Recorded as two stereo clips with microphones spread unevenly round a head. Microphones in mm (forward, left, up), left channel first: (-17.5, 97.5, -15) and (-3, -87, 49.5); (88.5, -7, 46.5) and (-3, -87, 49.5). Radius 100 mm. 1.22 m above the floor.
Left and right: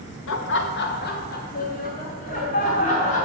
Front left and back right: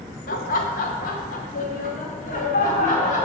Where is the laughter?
70° left, 1.0 m; by 3.2 s 40° left, 3.5 m.